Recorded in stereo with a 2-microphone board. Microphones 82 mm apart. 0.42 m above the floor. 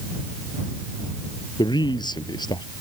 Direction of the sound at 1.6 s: 65° left (ahead or behind).